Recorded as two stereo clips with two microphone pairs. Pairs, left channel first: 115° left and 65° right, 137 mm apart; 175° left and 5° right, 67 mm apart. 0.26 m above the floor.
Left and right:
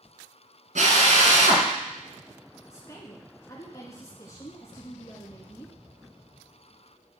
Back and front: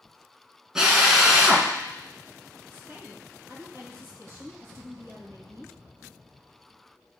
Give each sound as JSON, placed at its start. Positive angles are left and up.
{"t": 0.8, "sound": "a drill", "azimuth_deg": -80, "distance_m": 1.9}
{"t": 2.7, "sound": "a woman speaking", "azimuth_deg": 50, "distance_m": 3.0}